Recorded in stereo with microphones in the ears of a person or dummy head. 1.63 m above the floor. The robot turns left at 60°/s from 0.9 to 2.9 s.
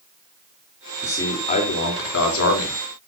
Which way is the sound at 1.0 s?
165° left.